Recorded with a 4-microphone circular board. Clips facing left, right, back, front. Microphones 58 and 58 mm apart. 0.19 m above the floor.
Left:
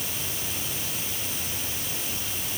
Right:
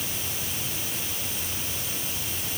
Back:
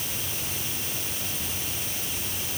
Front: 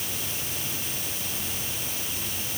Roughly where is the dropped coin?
No dropped coin in this recording.